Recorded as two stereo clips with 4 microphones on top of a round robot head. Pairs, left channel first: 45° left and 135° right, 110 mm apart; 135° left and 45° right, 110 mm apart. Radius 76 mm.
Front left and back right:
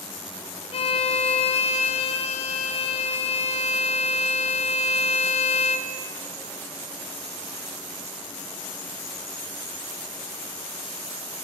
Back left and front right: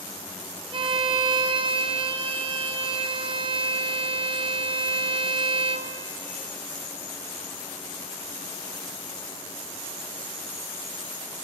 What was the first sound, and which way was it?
A violin, 5° left.